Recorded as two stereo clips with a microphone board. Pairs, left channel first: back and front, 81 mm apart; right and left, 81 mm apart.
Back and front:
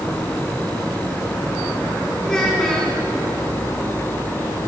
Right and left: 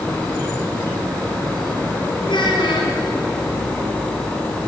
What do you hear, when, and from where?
2.2 s a child speaking: 95° right, 4.5 m